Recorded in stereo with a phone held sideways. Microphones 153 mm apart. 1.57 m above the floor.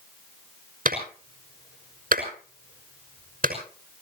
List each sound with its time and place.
0.8 s a clap: 70° right (ahead or behind), 5.5 m